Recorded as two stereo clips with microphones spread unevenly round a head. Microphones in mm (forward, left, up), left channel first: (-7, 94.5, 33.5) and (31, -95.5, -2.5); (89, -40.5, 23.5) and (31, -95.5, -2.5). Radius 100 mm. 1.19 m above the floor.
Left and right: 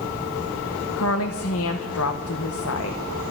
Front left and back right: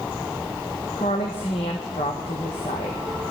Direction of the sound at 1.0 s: 85° left.